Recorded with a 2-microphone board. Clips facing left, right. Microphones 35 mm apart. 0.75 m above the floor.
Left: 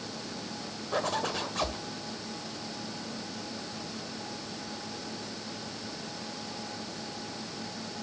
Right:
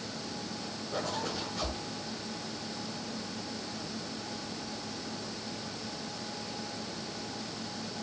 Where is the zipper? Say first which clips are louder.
Left 5 dB; 85° left, 2 m.